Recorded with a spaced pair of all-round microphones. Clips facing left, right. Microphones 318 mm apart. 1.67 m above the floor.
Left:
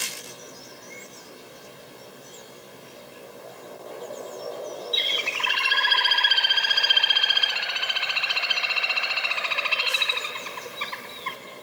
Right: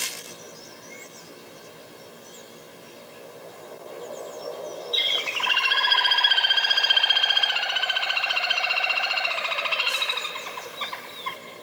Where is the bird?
30° left (ahead or behind), 1.8 m.